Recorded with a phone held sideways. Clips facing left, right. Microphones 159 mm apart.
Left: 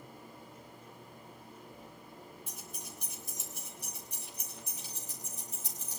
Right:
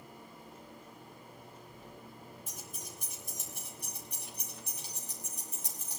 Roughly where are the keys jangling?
Right.